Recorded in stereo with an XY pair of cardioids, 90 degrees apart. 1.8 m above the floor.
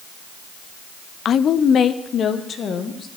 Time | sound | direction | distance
1.2 | a woman speaking | 65° left | 0.5 m